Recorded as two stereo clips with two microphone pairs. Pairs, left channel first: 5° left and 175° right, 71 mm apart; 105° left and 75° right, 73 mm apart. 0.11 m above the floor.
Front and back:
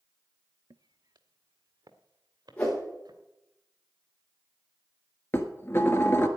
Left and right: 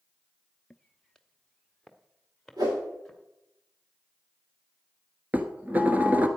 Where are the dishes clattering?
20° right, 1.2 m.